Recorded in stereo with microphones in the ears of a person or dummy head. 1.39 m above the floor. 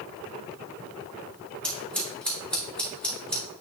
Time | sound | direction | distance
1.6 | scissors | 5° left (ahead or behind) | 2.0 m